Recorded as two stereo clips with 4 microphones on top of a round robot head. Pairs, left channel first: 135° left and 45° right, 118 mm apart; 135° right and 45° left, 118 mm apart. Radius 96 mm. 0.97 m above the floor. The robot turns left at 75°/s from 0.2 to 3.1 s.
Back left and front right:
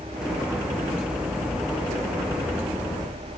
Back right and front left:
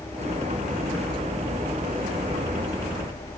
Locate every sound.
Only background noise.